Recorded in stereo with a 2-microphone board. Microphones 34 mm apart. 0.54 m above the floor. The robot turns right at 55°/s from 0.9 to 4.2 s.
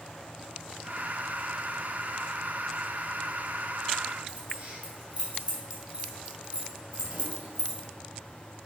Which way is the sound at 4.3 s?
40° right (ahead or behind).